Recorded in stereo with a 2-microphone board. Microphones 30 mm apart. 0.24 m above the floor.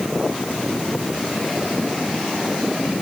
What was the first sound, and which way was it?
Only background noise.